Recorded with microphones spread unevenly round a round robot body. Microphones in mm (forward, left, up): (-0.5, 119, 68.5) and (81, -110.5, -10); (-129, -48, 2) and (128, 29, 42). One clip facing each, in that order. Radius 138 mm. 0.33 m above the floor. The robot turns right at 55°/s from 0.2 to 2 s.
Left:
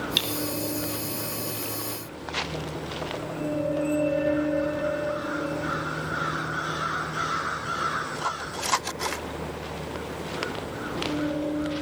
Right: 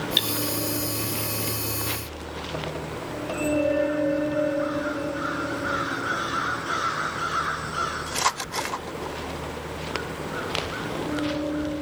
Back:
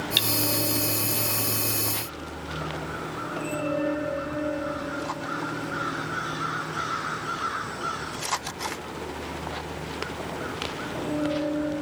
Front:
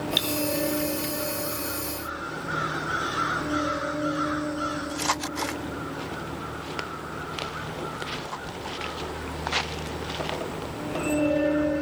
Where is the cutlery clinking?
150° right, 0.8 m; by 0.3 s 145° right, 0.8 m.